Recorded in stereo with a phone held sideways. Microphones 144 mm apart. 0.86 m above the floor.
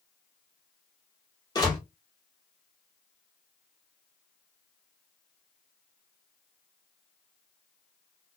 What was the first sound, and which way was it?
A door slam, 30° left (ahead or behind).